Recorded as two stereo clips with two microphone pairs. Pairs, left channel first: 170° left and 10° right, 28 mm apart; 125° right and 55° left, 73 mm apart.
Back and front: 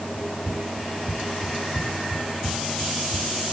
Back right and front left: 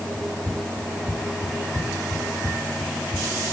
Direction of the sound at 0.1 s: 50° right.